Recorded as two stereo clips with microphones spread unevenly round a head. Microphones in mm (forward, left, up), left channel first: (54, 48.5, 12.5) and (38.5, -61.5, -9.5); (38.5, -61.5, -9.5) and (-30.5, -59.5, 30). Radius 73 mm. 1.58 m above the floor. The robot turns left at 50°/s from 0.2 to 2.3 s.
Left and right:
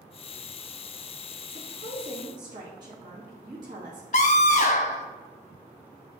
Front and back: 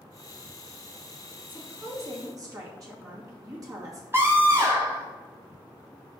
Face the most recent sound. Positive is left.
turn(degrees=110)